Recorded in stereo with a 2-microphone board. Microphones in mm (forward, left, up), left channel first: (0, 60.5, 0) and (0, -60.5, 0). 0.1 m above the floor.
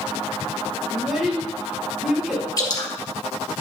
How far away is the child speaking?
About 3 m.